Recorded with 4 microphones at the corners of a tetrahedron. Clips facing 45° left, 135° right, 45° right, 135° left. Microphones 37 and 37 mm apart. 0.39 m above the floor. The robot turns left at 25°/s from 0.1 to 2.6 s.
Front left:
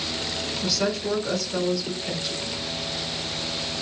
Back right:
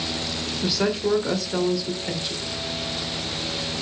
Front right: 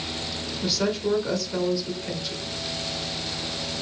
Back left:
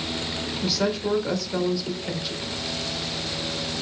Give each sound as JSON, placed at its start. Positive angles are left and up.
{"t": 0.6, "sound": "a woman speaking", "azimuth_deg": -140, "distance_m": 1.0}